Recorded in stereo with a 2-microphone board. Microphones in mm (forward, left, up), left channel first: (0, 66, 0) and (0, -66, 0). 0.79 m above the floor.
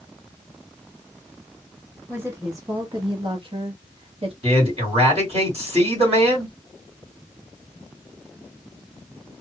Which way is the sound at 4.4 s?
55° right (ahead or behind).